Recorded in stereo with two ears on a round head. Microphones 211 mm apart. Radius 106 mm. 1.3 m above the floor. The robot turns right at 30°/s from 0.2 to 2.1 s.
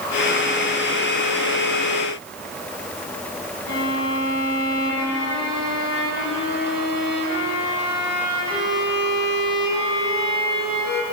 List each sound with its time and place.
3.7 s a violin: 45° left (ahead or behind), 6.5 m